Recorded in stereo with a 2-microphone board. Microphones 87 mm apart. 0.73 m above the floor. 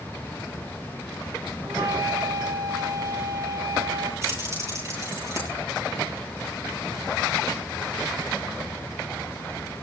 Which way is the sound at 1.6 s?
65° right (ahead or behind).